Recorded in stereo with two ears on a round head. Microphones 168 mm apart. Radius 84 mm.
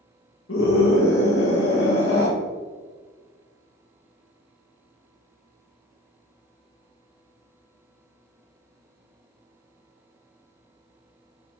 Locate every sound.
0.5 s a scream: 75° left (ahead or behind), 1.8 m